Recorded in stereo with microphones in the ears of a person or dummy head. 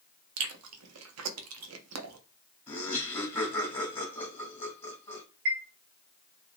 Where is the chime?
50° right (ahead or behind), 1.4 m.